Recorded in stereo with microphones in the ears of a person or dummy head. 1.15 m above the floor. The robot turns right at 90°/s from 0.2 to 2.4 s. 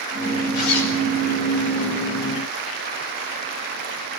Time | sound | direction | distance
0.6 | a zipper | 45° left | 4.5 m